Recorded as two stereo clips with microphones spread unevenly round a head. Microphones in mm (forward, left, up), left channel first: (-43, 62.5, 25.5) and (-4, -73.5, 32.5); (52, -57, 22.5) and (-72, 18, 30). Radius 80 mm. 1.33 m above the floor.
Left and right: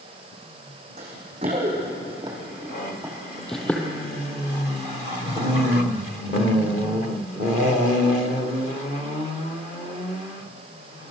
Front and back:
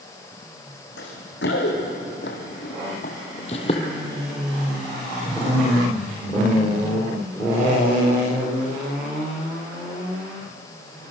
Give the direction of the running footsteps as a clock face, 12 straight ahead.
1 o'clock.